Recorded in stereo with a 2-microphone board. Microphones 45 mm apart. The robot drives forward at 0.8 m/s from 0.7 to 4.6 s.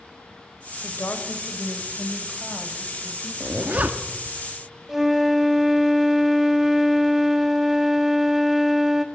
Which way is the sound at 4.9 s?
10° right (ahead or behind).